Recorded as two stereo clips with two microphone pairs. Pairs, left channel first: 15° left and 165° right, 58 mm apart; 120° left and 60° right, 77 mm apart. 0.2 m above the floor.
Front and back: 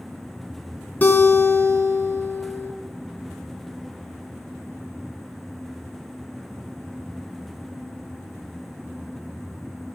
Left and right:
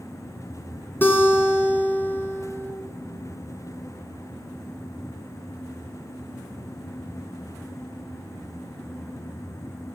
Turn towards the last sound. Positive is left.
turn(degrees=65)